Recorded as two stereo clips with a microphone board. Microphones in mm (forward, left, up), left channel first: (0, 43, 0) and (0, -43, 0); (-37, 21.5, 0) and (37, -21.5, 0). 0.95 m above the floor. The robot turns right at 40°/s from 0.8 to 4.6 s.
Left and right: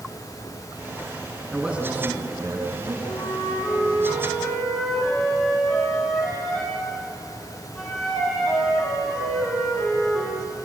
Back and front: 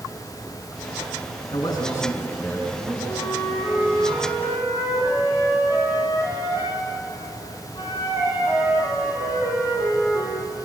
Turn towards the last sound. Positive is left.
turn(degrees=170)